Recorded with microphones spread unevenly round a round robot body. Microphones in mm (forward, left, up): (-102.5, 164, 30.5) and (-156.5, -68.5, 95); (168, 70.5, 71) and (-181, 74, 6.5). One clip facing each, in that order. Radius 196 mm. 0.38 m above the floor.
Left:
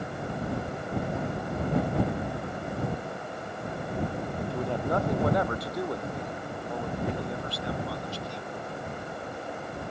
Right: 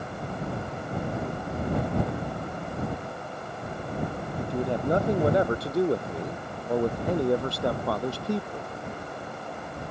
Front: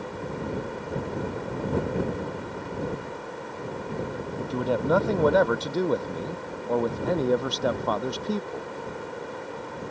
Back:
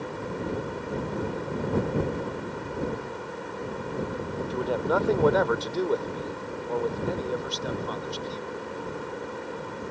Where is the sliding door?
No sliding door in this recording.